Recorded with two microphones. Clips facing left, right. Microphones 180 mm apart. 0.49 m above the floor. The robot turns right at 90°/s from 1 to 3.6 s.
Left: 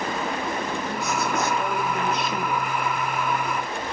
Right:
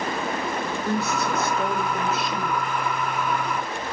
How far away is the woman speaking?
About 2.5 m.